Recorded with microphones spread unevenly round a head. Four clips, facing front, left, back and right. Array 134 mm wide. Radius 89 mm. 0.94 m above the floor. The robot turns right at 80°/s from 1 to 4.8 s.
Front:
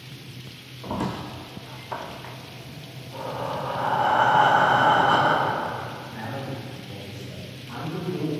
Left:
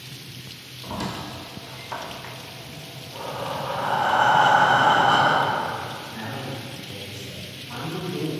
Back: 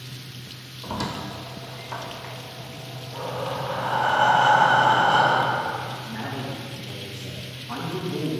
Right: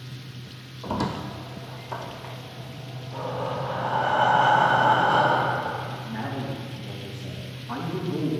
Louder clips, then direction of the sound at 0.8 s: Right 3 dB, front 1 dB; 45° right.